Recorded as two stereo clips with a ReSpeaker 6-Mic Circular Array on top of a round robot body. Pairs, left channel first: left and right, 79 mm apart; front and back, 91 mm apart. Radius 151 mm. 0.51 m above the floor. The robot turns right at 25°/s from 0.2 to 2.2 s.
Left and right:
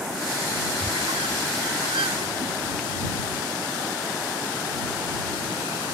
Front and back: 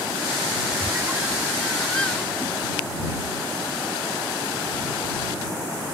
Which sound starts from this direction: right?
A squeak, at 0.8 s.